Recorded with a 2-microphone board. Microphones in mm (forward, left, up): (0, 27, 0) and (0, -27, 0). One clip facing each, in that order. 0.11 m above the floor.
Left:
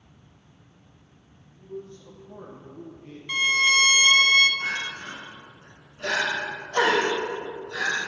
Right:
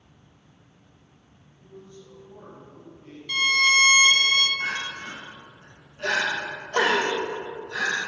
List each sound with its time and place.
1.5 s a man speaking: 50° left (ahead or behind), 2 m; by 3.2 s 15° left (ahead or behind), 2.5 m
3.3 s a violin: 20° left (ahead or behind), 1.3 m
4.6 s crying: 35° right (ahead or behind), 3 m